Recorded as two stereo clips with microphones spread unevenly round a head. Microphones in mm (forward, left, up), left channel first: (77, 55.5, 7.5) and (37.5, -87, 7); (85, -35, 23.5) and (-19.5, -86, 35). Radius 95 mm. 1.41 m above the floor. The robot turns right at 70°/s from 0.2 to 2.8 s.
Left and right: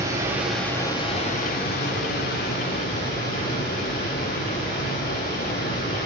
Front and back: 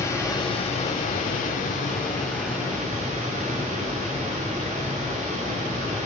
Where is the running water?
40° right, 5 m; by 6.0 s 145° left, 5 m.